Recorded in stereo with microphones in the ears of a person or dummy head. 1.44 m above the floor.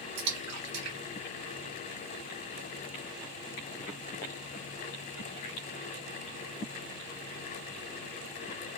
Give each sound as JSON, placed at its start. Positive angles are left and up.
{"t": 0.2, "sound": "a splash", "side_deg": -85, "distance_m": 1.8}